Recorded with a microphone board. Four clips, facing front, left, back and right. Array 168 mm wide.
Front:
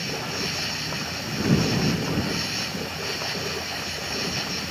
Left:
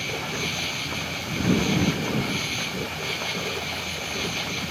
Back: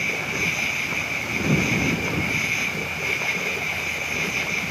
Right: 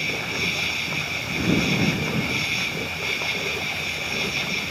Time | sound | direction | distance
0.0 | an insect | 175° left | ?